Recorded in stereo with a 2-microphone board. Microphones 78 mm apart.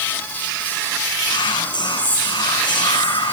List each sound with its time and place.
1.3 s whispering: 75° left (ahead or behind), 6.5 m